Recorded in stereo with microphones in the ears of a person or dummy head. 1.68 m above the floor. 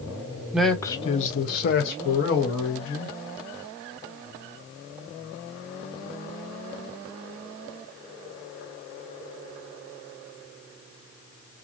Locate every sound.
0.5 s a man speaking: 10° right (ahead or behind), 0.5 m; by 3.1 s 75° left (ahead or behind), 1.6 m